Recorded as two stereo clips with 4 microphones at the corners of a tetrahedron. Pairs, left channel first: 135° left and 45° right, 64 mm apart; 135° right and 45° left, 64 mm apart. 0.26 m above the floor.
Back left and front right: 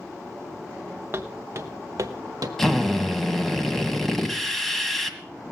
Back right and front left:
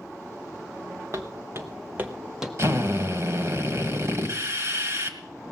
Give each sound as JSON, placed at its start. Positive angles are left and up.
{"t": 1.1, "sound": "footsteps", "azimuth_deg": 10, "distance_m": 1.4}
{"t": 2.6, "sound": "a drill", "azimuth_deg": 50, "distance_m": 1.7}